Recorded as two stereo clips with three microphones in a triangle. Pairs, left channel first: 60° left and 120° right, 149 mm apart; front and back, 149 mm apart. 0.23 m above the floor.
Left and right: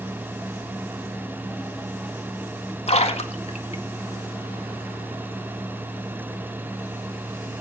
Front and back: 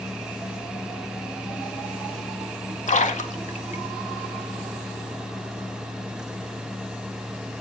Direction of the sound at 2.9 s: 25° left.